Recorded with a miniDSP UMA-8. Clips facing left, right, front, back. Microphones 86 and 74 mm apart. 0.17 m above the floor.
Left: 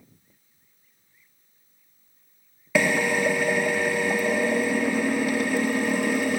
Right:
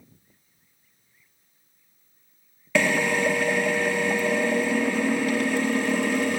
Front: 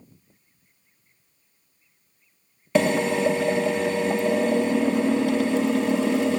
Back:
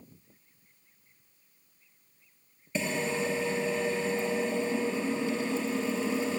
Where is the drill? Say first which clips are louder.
Even, front 10 dB; 10° left, 1.5 m.